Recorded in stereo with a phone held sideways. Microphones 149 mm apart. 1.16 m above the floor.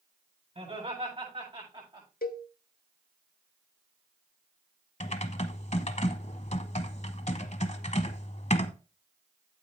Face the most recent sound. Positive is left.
turn(degrees=50)  # may be behind; listen again after turning